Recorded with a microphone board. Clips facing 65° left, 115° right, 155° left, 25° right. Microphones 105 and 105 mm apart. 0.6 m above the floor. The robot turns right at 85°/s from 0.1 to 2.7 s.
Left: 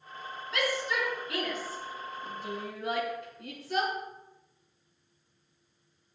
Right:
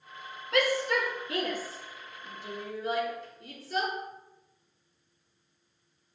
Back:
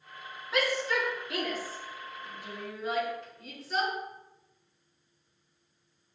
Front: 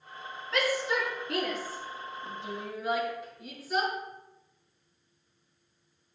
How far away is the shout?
About 5.5 m.